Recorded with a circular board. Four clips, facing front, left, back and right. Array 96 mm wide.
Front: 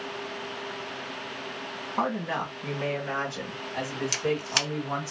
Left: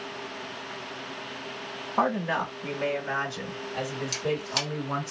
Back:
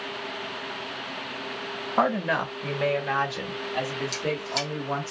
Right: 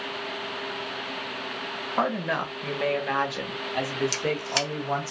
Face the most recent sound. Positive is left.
turn(degrees=-30)